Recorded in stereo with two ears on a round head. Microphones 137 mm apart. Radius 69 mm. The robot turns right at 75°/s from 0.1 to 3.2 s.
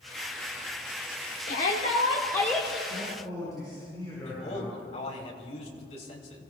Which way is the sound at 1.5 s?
90° left.